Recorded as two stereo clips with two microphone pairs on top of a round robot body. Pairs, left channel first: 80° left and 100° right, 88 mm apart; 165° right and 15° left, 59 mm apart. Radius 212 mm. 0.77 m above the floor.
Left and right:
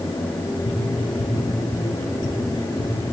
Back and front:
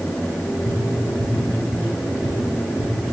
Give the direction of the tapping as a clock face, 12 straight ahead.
10 o'clock.